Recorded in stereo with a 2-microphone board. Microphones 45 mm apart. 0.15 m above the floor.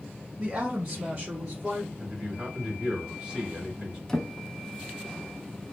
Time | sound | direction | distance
0.4 | a woman speaking | 25° right (ahead or behind) | 1.1 m
2.0 | a man speaking | 15° right (ahead or behind) | 1.6 m
4.1 | a drawer | 10° left (ahead or behind) | 0.5 m